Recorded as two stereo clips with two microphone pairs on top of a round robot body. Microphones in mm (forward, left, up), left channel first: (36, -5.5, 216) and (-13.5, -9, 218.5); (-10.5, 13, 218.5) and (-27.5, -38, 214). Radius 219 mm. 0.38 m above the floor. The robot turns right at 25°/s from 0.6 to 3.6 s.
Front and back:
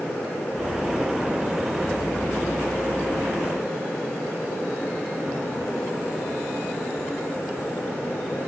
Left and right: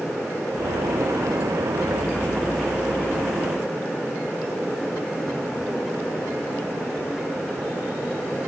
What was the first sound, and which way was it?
Only background noise.